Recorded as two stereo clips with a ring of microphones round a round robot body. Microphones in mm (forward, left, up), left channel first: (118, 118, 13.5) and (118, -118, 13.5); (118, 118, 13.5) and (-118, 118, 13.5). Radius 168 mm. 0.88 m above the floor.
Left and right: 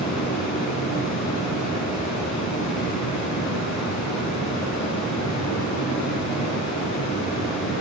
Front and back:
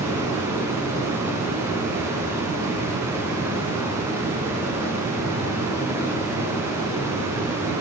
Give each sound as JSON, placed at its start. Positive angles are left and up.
{"t": 0.0, "sound": "running water", "azimuth_deg": 100, "distance_m": 6.5}